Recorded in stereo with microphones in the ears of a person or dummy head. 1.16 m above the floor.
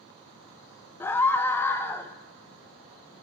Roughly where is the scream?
Centre.